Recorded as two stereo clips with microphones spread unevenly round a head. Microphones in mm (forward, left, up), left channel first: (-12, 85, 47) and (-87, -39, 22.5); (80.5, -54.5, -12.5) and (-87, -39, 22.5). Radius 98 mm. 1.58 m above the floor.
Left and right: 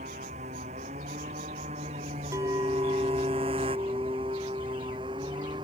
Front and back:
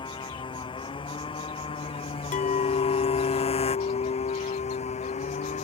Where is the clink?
45° right.